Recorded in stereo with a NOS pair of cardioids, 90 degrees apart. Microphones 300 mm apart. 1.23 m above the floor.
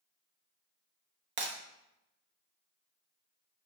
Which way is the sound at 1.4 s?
45° right.